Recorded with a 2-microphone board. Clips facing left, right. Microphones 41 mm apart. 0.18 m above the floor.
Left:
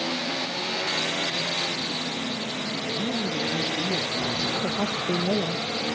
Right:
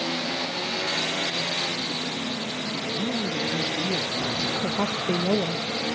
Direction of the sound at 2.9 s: Centre (ahead or behind).